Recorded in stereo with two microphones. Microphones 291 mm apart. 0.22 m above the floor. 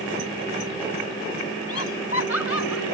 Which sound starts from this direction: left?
Laughter, at 1.7 s.